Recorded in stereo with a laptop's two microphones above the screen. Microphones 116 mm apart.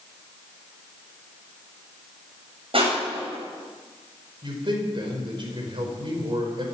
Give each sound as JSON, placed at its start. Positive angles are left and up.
{"t": 2.7, "sound": "crushing", "side_deg": -55, "distance_m": 7.0}
{"t": 4.4, "sound": "a man speaking", "side_deg": -50, "distance_m": 4.5}